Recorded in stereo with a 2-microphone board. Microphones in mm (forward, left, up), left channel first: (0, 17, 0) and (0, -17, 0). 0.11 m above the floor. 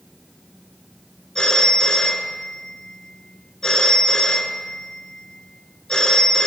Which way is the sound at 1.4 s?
20° left (ahead or behind).